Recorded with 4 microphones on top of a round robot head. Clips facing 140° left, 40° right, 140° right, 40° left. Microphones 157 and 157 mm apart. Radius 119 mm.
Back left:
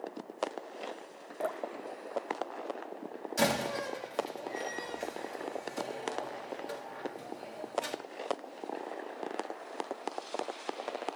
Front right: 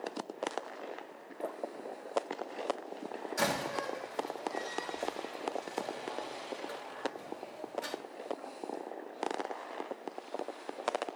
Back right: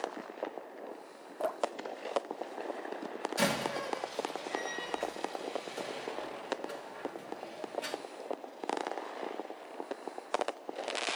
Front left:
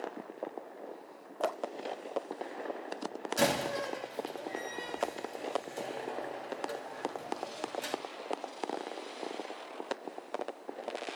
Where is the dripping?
130° left, 0.7 m.